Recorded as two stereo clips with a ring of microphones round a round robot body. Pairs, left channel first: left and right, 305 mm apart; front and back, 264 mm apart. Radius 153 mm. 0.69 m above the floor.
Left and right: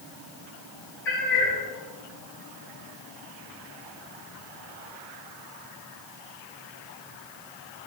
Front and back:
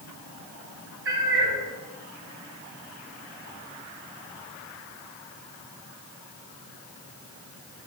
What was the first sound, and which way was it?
A cat meowing, 140° left.